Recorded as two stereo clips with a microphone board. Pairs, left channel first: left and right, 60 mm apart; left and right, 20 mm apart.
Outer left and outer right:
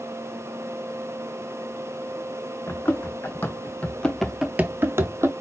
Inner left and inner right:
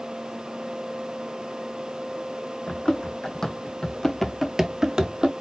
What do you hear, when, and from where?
2.7 s running footsteps: 40° left (ahead or behind), 1.9 m; by 5.3 s 50° right (ahead or behind), 1.0 m